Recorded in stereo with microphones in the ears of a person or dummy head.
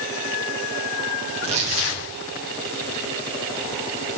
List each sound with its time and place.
1.3 s tearing paper: 40° right (ahead or behind), 2.5 m